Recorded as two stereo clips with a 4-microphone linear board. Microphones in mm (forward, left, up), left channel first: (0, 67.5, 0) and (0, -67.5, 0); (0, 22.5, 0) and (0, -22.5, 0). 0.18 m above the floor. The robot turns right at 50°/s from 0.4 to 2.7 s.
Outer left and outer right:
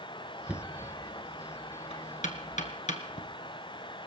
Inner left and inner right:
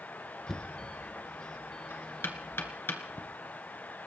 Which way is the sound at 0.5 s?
10° right (ahead or behind).